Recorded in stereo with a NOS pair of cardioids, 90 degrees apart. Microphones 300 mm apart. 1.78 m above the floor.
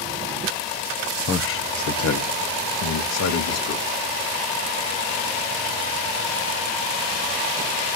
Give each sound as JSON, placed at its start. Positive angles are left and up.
{"t": 1.3, "sound": "a man speaking", "azimuth_deg": 45, "distance_m": 1.1}